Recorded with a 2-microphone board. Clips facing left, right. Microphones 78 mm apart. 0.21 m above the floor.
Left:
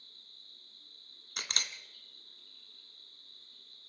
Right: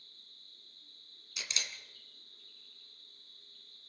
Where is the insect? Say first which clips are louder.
Left 1 dB; 85° left, 8.5 m.